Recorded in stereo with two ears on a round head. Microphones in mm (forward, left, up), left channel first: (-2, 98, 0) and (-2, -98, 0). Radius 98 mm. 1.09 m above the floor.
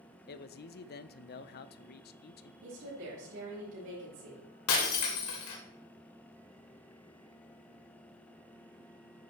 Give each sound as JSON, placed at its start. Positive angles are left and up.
{"t": 0.3, "sound": "a man speaking", "side_deg": 45, "distance_m": 0.5}
{"t": 2.6, "sound": "a woman speaking", "side_deg": -65, "distance_m": 5.0}
{"t": 4.7, "sound": "breaking glass", "side_deg": 70, "distance_m": 2.0}